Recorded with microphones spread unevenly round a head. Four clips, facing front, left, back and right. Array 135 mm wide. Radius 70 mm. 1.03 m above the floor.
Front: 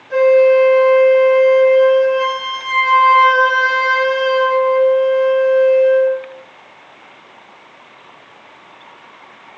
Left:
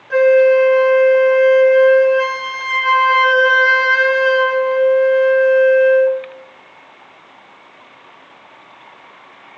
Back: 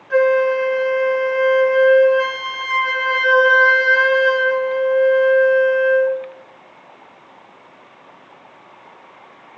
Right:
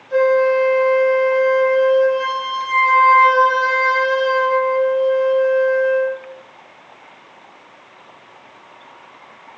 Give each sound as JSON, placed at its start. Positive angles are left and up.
{"t": 0.1, "sound": "a flute", "azimuth_deg": 95, "distance_m": 2.5}